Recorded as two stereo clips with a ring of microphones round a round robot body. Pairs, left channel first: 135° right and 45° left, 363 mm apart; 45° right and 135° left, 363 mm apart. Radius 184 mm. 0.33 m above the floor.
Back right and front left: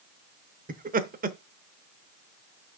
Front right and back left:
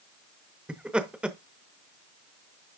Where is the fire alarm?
No fire alarm in this recording.